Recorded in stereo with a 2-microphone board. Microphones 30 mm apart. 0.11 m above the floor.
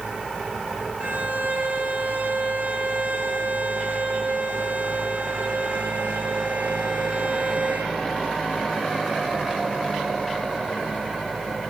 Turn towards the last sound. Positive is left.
turn(degrees=-75)  # may be behind; listen again after turning